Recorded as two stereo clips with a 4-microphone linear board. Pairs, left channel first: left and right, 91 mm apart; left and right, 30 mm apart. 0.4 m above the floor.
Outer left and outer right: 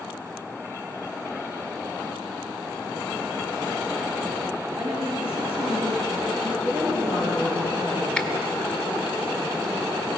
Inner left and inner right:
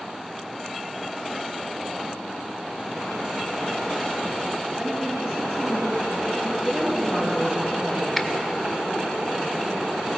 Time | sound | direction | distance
4.8 | a woman speaking | 80° right | 5.5 m
6.6 | a woman speaking | 75° right (ahead or behind) | 6.5 m
8.2 | a finger snap | 10° left (ahead or behind) | 0.7 m